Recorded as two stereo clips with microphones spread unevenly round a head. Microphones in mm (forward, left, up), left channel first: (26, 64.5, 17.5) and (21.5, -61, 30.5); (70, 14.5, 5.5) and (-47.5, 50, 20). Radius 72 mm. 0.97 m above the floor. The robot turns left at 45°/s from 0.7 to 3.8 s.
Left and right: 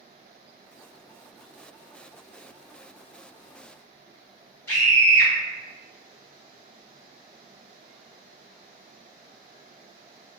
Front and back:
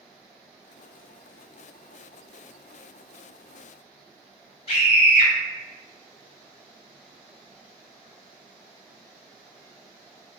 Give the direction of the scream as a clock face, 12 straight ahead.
12 o'clock.